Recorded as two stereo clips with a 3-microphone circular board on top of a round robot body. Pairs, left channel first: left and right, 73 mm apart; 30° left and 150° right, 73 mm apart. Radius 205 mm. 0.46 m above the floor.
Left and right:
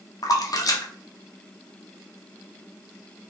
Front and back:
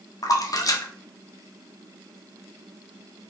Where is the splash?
60° left, 0.8 m.